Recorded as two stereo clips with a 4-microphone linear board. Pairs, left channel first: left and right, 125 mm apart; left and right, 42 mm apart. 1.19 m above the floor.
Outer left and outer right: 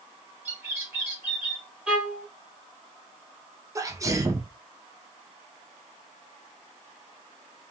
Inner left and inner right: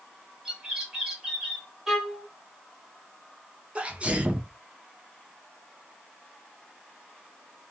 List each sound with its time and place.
0.5 s a bird: 15° right (ahead or behind), 1.1 m
1.9 s a violin: 10° right (ahead or behind), 0.9 m
3.8 s a sneeze: 25° right (ahead or behind), 0.6 m